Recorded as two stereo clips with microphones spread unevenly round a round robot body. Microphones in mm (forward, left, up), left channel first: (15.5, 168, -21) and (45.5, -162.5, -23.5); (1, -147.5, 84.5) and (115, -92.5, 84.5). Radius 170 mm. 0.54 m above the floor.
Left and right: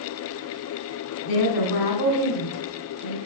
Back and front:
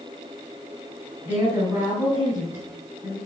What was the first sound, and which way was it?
A woman speaking, 105° left.